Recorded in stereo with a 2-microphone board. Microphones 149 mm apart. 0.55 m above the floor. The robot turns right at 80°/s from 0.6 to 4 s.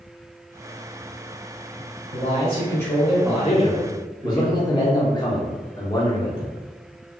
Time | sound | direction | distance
2.1 | a man speaking | 95° left | 1.5 m
3.4 | a man speaking | 90° left | 1.0 m